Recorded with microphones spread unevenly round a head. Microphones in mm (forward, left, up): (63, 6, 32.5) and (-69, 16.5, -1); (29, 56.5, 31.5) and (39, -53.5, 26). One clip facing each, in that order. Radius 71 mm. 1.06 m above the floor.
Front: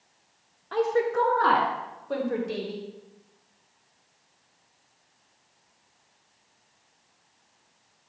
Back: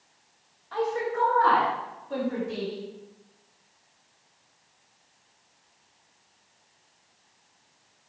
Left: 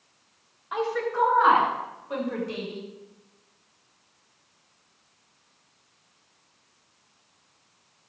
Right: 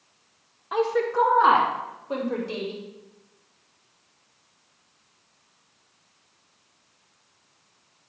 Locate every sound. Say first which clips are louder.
0.7 s a woman speaking: front 4 dB, right 4 dB; 40° right, 1.4 m; by 2.8 s 30° right, 3 m